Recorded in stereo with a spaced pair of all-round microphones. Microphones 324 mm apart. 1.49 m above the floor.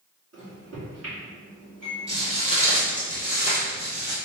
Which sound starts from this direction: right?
A microwave, at 0.3 s.